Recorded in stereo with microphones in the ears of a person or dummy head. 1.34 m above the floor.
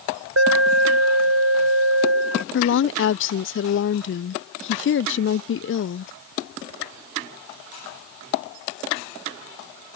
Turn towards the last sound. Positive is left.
turn(degrees=55)  # may be behind; listen again after turning